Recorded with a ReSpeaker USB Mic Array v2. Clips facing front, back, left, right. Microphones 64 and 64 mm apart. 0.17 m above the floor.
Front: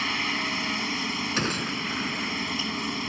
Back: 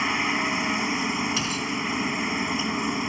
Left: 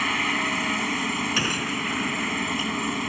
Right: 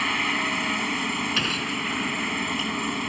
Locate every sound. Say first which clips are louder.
0.0 s a helicopter: back 4 dB, even; 175° left
1.4 s a gunshot: back 1 dB, left 1 dB; 10° left